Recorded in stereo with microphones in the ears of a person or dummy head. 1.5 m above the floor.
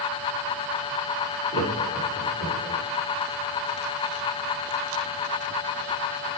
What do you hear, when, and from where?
1.5 s laughter: 30° right (ahead or behind), 4.5 m; by 2.8 s 25° right (ahead or behind), 5.5 m